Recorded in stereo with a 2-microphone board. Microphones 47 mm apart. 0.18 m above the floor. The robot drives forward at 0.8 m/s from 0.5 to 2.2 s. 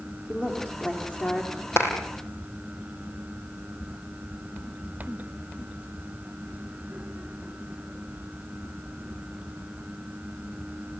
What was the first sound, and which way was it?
A woman speaking, 25° left (ahead or behind).